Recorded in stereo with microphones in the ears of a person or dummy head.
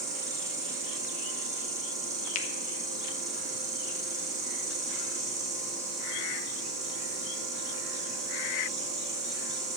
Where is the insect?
20° right (ahead or behind), 3 m.